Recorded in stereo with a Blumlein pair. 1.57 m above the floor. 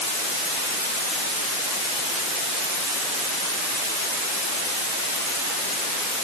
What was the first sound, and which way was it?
Only background noise.